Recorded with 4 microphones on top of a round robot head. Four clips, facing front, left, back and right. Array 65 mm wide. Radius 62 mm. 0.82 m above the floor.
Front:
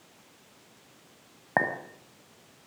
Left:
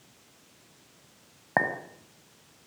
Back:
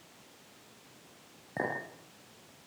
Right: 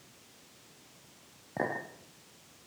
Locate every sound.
1.6 s a clink: 50° left, 4 m